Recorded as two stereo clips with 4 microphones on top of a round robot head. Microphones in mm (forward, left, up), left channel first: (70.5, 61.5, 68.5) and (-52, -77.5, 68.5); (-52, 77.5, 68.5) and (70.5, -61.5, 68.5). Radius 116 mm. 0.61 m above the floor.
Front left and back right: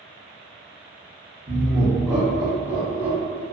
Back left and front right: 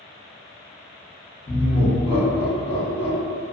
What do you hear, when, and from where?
1.5 s laughter: 175° left, 0.8 m; by 3.4 s 80° left, 1.4 m